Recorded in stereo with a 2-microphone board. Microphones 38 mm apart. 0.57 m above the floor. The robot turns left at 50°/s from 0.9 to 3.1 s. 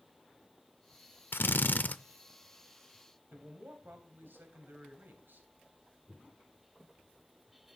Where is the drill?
80° left, 0.6 m; by 2.0 s 50° left, 0.6 m.